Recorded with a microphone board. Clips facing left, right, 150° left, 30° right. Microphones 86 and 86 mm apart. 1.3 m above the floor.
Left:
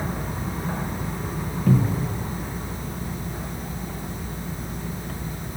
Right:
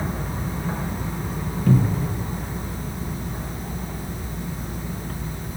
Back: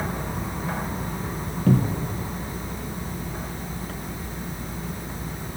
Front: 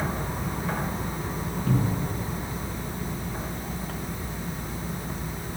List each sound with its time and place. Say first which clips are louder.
1.7 s a cupboard door: right 1 dB, back 5 dB; 175° left, 1.2 m